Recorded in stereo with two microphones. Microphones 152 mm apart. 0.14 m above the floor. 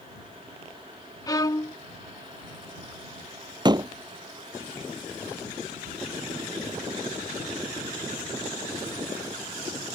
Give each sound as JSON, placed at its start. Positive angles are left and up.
{"t": 1.3, "sound": "a violin", "side_deg": 25}
{"t": 3.6, "sound": "a door slam", "side_deg": -30}